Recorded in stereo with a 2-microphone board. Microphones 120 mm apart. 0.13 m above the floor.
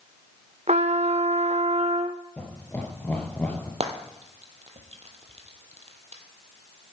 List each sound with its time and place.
0.7 s a trumpet: 65° right (ahead or behind), 0.9 m
2.4 s laughter: 15° left (ahead or behind), 2.5 m
3.8 s frying: 60° right (ahead or behind), 1.5 m